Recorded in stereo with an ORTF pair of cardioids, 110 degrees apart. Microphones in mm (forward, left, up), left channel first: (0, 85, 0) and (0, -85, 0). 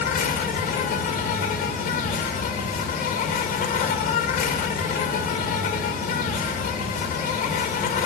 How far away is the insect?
About 2 m.